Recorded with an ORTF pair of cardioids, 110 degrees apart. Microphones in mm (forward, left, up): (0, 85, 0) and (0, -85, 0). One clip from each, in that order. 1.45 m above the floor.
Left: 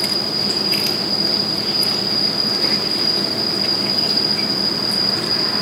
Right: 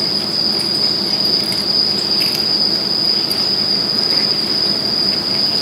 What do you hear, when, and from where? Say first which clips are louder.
0.0 s an insect: right 3 dB; 25° right